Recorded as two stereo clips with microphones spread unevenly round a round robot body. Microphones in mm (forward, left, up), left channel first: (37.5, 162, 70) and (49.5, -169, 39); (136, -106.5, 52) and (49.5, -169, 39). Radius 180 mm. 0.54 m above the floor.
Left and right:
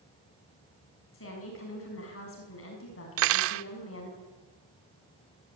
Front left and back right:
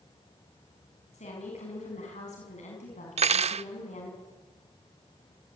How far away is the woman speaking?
About 6.5 m.